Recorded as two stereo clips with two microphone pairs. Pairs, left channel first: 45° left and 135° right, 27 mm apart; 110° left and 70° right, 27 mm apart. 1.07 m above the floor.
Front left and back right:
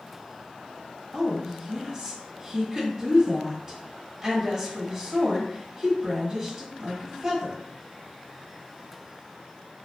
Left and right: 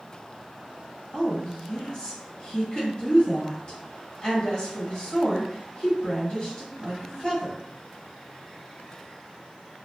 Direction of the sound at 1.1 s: 160° left.